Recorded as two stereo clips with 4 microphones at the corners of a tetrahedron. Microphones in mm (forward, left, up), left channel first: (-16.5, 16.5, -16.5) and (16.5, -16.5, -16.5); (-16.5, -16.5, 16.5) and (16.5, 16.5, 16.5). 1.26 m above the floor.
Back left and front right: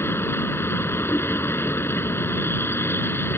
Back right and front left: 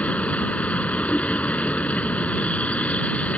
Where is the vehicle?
165° left.